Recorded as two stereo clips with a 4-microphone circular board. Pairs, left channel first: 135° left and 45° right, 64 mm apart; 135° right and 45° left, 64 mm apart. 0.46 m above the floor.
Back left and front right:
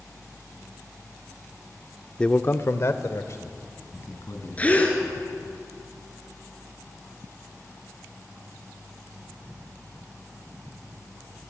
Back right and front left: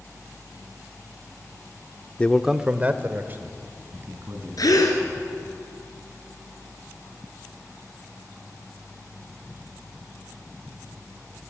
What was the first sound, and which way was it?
A man speaking, 165° right.